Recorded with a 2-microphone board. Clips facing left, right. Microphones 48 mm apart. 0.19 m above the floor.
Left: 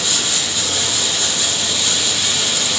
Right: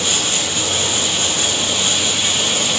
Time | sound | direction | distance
0.0 | running water | 40° right (ahead or behind) | 3.5 m